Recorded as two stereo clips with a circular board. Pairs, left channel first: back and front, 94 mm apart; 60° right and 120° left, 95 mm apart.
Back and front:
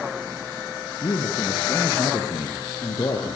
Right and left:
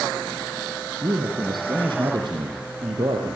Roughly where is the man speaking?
Behind left.